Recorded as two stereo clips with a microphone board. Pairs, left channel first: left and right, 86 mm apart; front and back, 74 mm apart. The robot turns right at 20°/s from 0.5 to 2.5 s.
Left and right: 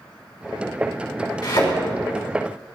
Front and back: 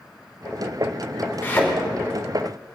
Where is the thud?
65° left, 5 m; by 1.7 s 70° left, 5 m.